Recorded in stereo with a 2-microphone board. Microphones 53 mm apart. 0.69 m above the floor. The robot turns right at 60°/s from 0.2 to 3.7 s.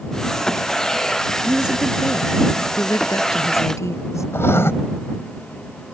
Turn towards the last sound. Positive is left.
turn(degrees=55)  # may be behind; listen again after turning